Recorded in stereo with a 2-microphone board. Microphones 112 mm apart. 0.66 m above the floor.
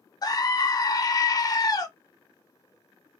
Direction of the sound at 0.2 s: 35° left (ahead or behind).